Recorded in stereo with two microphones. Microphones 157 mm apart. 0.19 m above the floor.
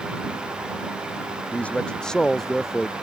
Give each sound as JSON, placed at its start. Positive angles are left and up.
{"t": 1.5, "sound": "a man speaking", "side_deg": 10}